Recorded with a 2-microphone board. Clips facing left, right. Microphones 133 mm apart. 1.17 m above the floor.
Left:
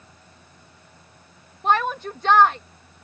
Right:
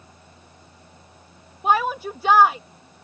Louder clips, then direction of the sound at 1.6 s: Right 1 dB; 10° right (ahead or behind).